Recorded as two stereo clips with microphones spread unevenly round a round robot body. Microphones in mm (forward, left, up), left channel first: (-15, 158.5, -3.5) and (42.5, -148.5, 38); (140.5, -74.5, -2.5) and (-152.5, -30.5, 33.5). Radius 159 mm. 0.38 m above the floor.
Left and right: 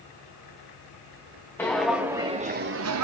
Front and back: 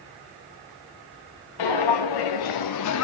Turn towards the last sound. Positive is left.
turn(degrees=-55)